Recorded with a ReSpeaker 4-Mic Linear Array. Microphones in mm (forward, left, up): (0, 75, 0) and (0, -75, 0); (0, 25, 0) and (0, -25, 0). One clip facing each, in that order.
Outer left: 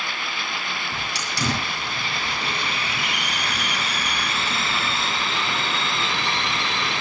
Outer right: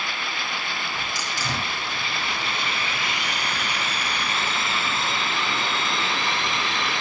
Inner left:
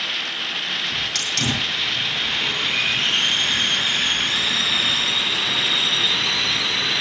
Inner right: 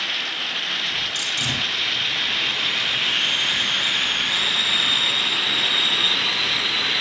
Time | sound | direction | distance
0.9 | a hiss | 85° left | 8.5 m